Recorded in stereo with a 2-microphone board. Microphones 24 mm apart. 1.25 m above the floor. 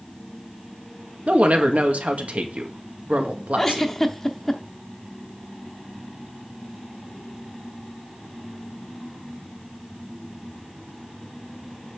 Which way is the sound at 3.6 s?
10° left (ahead or behind).